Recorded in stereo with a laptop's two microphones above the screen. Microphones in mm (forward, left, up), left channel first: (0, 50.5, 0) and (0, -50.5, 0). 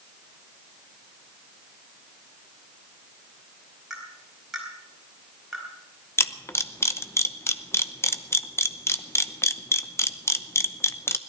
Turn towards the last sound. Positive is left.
turn(degrees=25)  # may be behind; listen again after turning